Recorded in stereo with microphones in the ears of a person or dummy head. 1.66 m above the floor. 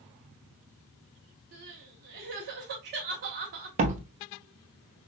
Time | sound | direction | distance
1.5 | crying | 40° right (ahead or behind) | 0.9 m
3.8 | a door slam | 40° right (ahead or behind) | 0.7 m